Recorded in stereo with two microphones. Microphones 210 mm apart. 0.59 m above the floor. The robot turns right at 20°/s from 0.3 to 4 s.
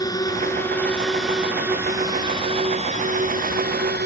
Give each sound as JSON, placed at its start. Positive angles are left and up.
{"t": 0.0, "sound": "a drone", "azimuth_deg": 160}